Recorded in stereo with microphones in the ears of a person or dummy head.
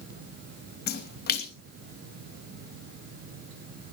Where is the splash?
50° left (ahead or behind), 2.5 m.